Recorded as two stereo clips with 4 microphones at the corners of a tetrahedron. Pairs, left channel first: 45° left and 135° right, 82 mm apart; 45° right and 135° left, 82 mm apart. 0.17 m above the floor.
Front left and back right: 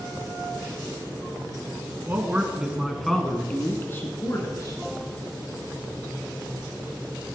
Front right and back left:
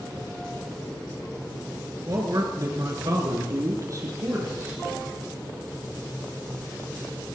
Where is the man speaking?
165° left, 2.5 m; by 4.8 s 85° left, 3 m.